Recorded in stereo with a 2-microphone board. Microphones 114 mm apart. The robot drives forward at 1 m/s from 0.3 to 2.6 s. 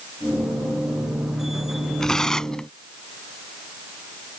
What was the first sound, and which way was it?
Tearing paper, 5° left (ahead or behind).